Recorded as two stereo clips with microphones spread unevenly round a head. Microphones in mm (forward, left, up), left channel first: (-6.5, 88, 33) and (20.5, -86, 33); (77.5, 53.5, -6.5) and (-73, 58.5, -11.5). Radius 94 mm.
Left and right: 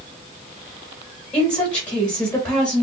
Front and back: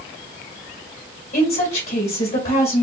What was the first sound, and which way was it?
A woman speaking, 25° left.